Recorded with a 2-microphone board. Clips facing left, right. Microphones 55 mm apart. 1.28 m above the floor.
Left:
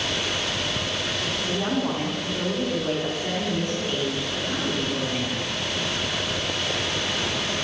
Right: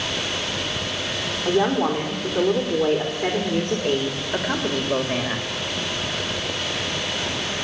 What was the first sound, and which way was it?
A woman speaking, 55° right (ahead or behind).